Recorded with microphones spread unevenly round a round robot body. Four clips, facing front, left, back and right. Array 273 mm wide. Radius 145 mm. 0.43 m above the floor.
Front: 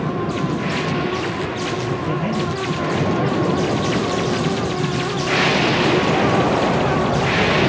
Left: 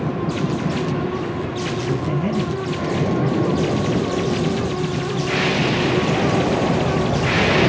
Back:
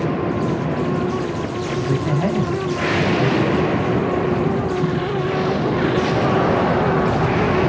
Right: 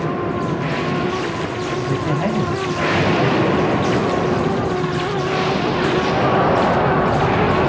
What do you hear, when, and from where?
1.9 s a man speaking: 130° right, 1.1 m